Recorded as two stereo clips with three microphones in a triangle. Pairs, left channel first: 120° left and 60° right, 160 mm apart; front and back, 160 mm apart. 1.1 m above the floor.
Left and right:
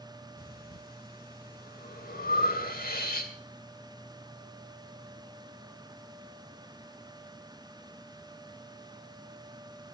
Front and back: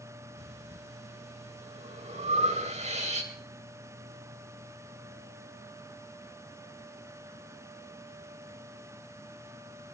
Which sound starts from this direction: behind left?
Breathing, at 0.4 s.